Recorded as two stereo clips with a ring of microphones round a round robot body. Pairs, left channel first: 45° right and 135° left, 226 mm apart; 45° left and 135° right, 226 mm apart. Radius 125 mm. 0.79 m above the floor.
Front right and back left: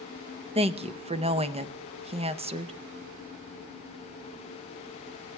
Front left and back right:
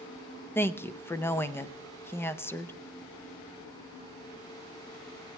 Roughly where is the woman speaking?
Behind left.